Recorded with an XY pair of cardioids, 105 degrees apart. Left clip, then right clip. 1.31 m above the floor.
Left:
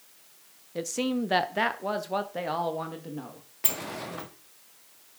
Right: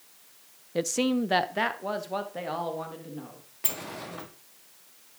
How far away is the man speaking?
About 0.5 m.